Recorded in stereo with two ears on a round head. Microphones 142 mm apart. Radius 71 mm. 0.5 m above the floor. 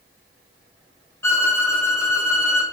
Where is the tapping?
I don't hear tapping.